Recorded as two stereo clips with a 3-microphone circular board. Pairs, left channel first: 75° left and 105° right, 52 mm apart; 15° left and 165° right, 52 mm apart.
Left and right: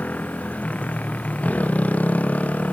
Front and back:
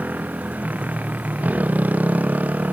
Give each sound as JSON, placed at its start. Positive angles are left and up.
{"t": 0.0, "sound": "a motorcycle", "azimuth_deg": 140}